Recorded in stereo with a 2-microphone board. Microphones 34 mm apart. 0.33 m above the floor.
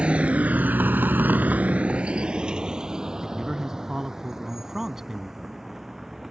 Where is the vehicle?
35° right (ahead or behind); by 6.3 s 5° right (ahead or behind).